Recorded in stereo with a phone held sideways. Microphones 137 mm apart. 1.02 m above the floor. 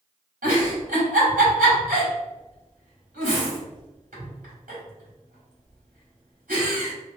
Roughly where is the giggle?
Right.